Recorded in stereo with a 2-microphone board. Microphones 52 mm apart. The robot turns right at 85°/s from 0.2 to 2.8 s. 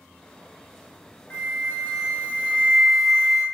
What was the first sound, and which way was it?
A flute, 55° left.